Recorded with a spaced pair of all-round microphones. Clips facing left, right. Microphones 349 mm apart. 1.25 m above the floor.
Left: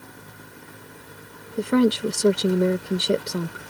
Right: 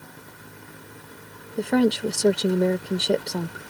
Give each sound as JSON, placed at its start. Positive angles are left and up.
{"t": 1.6, "sound": "a woman speaking", "side_deg": 10}